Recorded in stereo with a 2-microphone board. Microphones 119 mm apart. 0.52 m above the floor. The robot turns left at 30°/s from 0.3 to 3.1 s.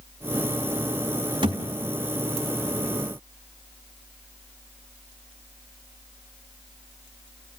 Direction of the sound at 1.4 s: 45° right (ahead or behind).